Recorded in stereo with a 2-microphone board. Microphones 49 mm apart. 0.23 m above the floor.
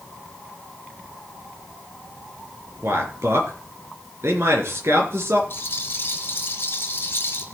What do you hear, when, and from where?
2.8 s a man speaking: 60° right (ahead or behind), 4 m
5.5 s a rattle: 45° left (ahead or behind), 3.5 m